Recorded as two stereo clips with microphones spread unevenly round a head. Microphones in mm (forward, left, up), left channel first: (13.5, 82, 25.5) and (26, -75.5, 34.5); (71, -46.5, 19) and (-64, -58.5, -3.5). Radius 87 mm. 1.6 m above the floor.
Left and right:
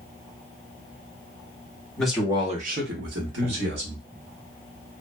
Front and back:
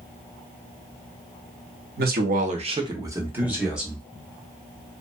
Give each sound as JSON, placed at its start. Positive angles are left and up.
{"t": 2.0, "sound": "a man speaking", "azimuth_deg": 180, "distance_m": 0.8}